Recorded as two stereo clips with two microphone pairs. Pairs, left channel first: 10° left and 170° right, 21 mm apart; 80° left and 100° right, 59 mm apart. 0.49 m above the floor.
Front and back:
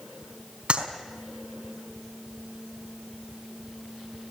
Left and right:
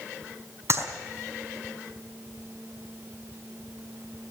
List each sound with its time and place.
0.7 s a clap: 135° right, 4.5 m